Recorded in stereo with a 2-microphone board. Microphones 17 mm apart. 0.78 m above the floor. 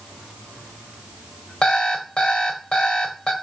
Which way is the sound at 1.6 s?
85° left.